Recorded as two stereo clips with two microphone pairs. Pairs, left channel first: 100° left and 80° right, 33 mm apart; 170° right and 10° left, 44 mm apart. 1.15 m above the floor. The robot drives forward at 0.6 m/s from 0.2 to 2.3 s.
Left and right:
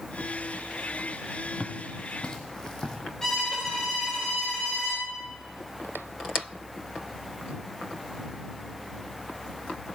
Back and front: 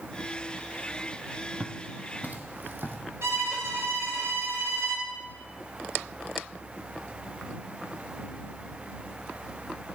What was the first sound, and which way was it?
Footsteps, 45° left.